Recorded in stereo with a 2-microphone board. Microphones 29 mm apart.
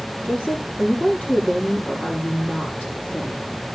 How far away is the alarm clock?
No alarm clock in this recording.